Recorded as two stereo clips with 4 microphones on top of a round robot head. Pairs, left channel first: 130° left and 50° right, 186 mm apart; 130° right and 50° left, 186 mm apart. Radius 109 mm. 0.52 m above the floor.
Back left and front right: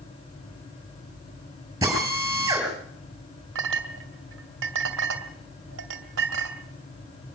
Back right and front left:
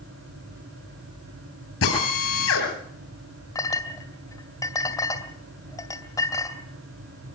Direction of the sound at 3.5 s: 55° right.